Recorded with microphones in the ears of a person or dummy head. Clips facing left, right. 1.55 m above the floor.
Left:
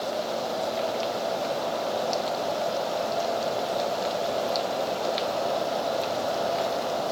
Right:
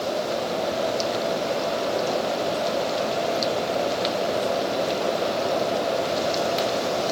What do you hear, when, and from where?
Only background noise.